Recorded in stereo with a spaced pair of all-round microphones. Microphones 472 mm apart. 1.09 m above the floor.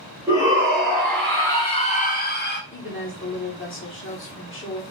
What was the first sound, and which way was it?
A shout, 10° right (ahead or behind).